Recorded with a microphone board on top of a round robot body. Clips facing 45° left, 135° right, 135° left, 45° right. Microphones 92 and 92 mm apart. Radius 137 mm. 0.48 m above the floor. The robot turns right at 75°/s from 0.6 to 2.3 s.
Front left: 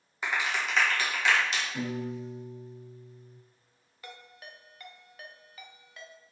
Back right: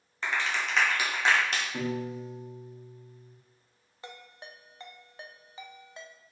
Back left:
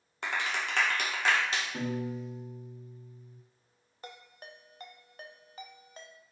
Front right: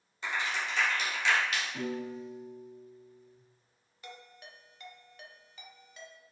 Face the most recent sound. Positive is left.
turn(degrees=170)